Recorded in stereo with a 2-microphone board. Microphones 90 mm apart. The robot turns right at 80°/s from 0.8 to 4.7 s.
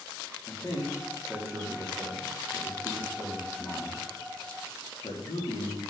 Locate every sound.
0.5 s a man speaking: 30° left (ahead or behind), 2.5 m; by 5.8 s 75° left (ahead or behind), 2.5 m